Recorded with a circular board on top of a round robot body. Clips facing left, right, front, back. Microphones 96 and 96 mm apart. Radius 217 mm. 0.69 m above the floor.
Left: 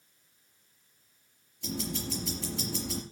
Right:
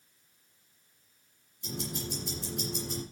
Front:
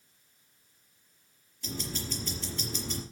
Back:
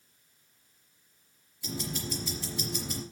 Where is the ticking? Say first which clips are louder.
Left 2 dB, back 2 dB; 100° left, 4 m.